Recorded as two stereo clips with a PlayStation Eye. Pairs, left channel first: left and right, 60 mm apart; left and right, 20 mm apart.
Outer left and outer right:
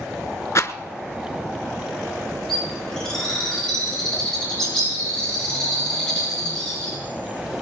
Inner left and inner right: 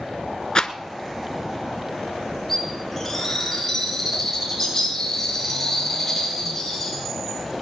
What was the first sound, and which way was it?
A rattle, 55° left (ahead or behind).